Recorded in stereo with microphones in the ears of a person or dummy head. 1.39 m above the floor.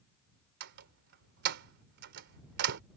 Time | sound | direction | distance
0.6 | a door slam | 65° right (ahead or behind) | ?